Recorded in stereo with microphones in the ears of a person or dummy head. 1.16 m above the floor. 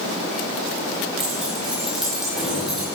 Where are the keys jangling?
Centre (ahead or behind), 5.5 m.